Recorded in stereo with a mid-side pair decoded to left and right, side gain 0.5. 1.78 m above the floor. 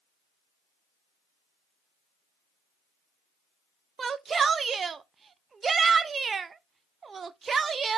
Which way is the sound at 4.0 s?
35° right.